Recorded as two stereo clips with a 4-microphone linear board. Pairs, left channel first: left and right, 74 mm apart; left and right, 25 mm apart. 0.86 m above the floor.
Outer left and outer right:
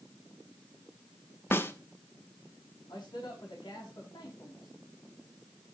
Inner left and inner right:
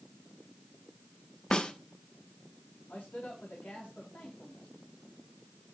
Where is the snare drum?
30° left (ahead or behind), 1.2 m.